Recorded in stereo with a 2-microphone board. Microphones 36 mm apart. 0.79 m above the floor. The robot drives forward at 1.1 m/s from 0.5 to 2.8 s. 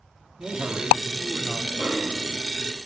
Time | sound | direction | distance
0.4 | a man speaking | 60° right (ahead or behind) | 2 m
1.8 | a snare drum | 70° right (ahead or behind) | 6.5 m